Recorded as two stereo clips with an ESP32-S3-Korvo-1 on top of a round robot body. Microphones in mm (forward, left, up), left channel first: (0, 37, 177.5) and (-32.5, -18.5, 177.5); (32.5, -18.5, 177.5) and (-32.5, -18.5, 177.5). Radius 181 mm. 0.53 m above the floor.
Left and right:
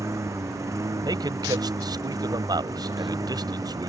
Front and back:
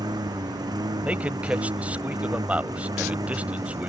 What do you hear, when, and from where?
0.0 s a lawn mower: 165° right; by 3.9 s 150° right
1.0 s a man speaking: 110° right